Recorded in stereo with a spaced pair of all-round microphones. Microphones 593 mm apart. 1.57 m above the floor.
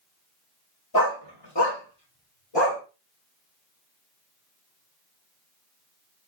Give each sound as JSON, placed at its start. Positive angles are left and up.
{"t": 0.9, "sound": "a dog barking", "side_deg": 35, "distance_m": 1.3}